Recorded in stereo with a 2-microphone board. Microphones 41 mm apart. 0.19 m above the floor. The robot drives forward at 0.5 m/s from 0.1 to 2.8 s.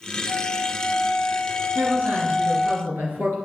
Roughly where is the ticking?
I don't hear ticking.